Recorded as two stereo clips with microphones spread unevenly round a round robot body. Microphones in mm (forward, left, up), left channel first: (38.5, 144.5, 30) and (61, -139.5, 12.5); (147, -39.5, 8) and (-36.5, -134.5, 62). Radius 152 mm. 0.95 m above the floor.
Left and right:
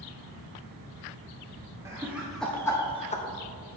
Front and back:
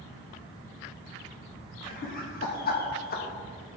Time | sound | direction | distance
1.9 | laughter | 5° right | 1.5 m